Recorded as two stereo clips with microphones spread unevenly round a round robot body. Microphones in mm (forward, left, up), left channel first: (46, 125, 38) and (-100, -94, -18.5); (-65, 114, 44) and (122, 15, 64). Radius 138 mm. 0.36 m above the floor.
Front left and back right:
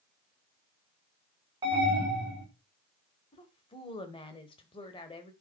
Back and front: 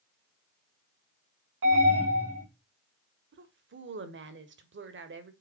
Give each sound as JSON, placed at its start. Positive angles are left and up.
{"t": 1.6, "sound": "an alarm", "azimuth_deg": -55, "distance_m": 5.0}
{"t": 3.3, "sound": "a woman speaking", "azimuth_deg": -20, "distance_m": 1.6}